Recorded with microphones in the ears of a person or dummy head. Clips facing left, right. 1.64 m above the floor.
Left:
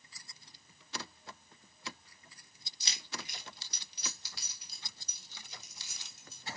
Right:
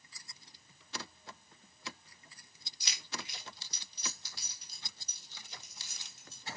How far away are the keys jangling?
About 1.3 m.